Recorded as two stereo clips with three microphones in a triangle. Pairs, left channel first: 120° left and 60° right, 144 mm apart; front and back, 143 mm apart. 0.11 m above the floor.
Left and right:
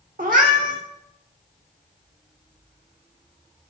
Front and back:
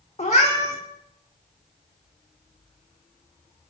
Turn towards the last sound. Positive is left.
turn(degrees=-45)